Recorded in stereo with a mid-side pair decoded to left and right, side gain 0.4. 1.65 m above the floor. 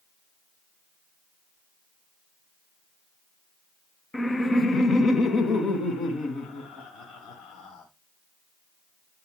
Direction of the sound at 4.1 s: 15° left.